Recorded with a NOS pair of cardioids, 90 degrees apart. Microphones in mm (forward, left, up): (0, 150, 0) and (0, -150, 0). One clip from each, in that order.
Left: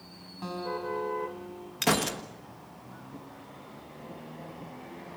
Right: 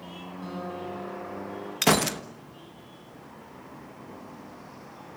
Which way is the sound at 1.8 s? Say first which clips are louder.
Right 4 dB; 30° right.